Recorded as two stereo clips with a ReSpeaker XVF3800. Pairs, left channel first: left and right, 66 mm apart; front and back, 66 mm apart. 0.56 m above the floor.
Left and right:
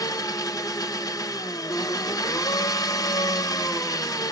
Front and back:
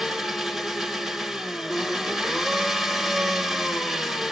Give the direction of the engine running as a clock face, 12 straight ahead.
9 o'clock.